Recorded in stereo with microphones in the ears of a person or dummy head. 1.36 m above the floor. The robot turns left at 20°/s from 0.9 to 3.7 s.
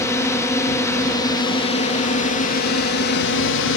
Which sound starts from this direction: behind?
A drone, at 0.0 s.